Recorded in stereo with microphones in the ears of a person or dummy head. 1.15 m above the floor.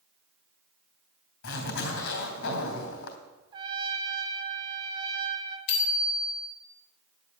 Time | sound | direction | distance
1.4 | a zipper | 75° left (ahead or behind) | 3 m
3.5 | a trumpet | 30° right (ahead or behind) | 1.6 m
5.7 | a bicycle bell | 60° left (ahead or behind) | 3.5 m